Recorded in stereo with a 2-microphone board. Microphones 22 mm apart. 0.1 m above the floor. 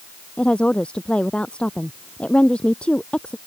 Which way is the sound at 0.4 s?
50° left (ahead or behind).